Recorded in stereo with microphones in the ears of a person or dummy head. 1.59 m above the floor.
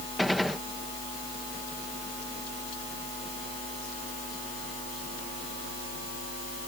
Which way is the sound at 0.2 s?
5° right (ahead or behind).